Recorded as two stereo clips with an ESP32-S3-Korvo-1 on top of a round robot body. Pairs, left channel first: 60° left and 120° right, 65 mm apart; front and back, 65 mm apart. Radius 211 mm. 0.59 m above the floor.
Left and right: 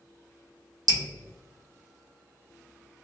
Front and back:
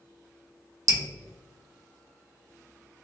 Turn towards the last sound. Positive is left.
turn(degrees=-140)